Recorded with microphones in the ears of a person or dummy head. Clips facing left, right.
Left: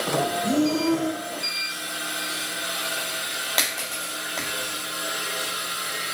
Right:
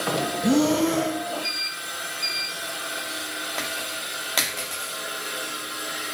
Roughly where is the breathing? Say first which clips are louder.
Right 3 dB; right.